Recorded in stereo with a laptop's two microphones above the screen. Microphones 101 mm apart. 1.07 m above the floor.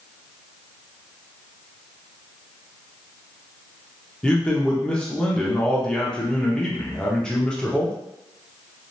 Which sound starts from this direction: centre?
A man speaking, at 4.2 s.